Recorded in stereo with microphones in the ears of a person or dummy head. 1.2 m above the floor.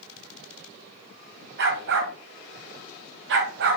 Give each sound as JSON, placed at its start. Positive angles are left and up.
{"t": 1.6, "sound": "a dog barking", "side_deg": -55, "distance_m": 2.0}